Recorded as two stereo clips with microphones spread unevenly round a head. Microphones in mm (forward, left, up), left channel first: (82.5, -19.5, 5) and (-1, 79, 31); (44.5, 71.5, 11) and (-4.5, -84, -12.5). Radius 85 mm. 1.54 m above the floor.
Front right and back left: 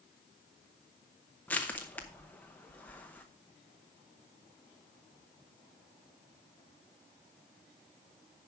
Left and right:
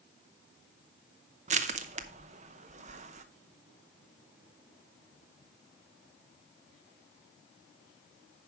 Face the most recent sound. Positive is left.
turn(degrees=-140)